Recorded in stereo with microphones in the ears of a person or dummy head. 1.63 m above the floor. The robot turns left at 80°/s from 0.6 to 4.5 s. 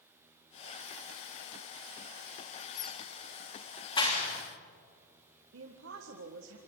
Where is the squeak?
15° right (ahead or behind), 1.5 m; by 3.0 s 20° left (ahead or behind), 1.5 m.